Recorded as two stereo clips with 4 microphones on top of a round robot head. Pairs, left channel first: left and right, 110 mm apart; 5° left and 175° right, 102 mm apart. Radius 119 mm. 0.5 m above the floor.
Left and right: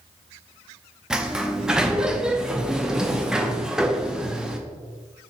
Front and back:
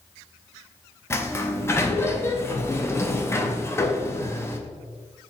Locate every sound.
1.1 s a sliding door: 15° right, 0.7 m